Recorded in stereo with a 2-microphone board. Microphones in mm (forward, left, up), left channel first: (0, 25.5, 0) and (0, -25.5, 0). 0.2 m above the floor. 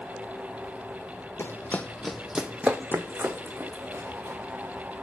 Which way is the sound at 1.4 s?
50° left (ahead or behind).